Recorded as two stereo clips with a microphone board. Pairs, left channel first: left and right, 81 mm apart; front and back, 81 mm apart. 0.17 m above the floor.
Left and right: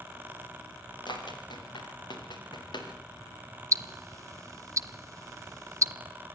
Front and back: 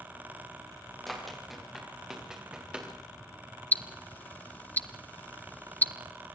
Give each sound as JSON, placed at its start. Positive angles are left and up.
{"t": 1.1, "sound": "running footsteps", "azimuth_deg": 90, "distance_m": 5.0}
{"t": 3.7, "sound": "ticking", "azimuth_deg": -60, "distance_m": 0.6}